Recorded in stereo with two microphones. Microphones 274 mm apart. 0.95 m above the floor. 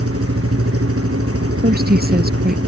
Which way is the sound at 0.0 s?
55° right (ahead or behind).